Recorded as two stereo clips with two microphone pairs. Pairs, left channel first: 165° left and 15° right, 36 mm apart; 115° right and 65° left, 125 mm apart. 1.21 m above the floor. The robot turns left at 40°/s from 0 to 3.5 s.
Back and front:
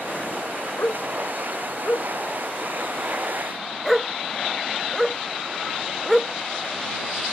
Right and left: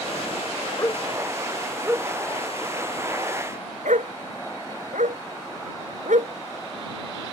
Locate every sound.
0.8 s a dog barking: straight behind; by 7.3 s 75° left